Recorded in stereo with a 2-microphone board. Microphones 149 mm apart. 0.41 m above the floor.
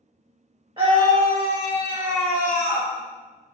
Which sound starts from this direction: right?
A scream, at 0.8 s.